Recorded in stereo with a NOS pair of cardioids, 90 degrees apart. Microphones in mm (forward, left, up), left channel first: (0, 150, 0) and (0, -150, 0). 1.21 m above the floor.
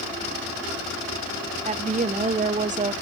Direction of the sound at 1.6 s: 25° right.